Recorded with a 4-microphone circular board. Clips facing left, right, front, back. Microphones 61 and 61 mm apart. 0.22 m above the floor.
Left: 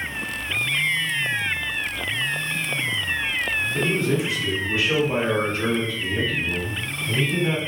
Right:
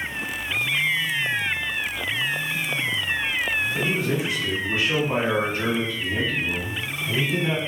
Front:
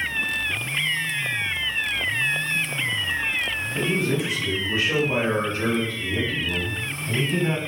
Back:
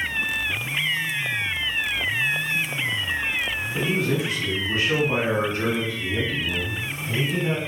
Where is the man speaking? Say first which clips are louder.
Left 2 dB, even; 165° right, 1.9 m; by 7.6 s 5° left, 1.2 m.